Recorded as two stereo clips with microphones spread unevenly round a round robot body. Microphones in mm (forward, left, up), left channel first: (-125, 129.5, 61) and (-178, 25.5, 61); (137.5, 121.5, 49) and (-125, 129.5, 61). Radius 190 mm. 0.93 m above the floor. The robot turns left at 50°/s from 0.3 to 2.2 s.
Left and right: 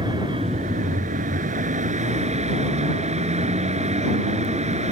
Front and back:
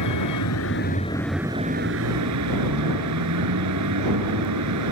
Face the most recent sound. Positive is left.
turn(degrees=-135)